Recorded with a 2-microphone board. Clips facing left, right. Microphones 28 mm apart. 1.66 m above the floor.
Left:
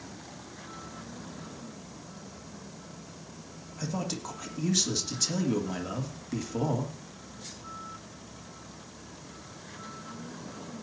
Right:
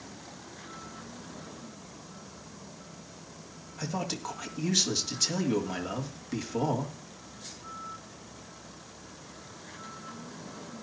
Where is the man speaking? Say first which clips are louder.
Even; 5° right (ahead or behind), 2.5 m.